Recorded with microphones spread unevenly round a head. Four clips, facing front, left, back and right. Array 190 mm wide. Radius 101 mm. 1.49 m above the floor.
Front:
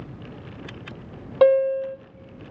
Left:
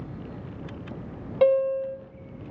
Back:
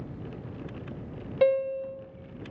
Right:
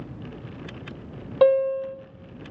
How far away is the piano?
About 0.9 m.